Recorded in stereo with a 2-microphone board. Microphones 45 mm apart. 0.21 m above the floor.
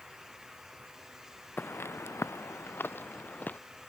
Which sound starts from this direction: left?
Footsteps, at 1.6 s.